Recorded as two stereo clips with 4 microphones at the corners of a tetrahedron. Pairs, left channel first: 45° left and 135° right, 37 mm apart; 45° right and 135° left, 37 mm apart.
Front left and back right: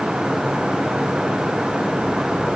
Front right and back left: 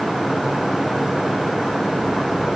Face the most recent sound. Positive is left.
No sound to turn to.